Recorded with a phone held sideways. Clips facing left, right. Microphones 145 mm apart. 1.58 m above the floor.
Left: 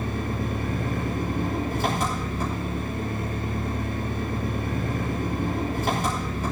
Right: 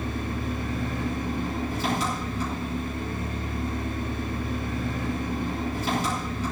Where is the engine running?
55° left (ahead or behind), 6 m.